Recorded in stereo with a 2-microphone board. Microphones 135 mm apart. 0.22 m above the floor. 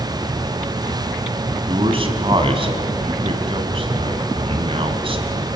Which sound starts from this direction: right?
A man speaking, at 1.7 s.